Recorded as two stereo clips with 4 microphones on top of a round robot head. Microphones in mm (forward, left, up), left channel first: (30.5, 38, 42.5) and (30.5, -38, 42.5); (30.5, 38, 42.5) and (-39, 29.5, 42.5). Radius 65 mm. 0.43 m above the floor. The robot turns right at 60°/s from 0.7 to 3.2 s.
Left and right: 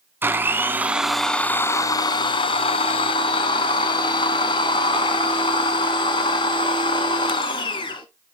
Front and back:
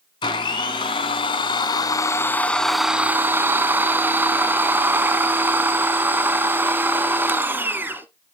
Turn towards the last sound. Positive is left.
turn(degrees=125)